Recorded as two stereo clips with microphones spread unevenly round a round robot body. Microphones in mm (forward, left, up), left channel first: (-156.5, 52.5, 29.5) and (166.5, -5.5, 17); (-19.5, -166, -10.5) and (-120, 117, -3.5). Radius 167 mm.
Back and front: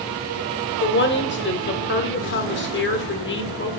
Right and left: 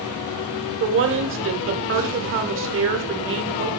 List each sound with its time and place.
0.8 s a woman speaking: 130° left, 1.0 m